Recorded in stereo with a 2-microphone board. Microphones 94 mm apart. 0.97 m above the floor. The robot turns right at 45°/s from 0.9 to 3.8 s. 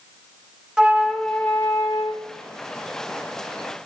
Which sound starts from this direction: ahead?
A flute, at 0.8 s.